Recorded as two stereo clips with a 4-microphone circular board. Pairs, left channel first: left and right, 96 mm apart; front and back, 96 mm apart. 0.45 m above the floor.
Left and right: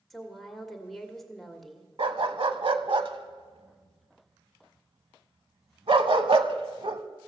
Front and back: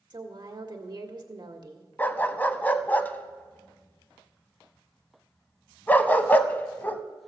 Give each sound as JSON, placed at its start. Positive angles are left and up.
{"t": 0.1, "sound": "a woman speaking", "azimuth_deg": 180, "distance_m": 1.6}
{"t": 2.0, "sound": "a dog barking", "azimuth_deg": -70, "distance_m": 0.7}